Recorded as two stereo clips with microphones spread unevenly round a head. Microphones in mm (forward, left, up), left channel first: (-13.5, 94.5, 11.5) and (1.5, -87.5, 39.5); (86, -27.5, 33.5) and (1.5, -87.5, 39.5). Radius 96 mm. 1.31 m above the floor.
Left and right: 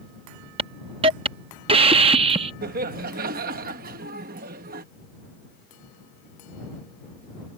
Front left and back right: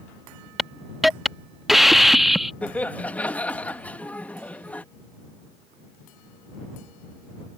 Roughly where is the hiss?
Ahead right.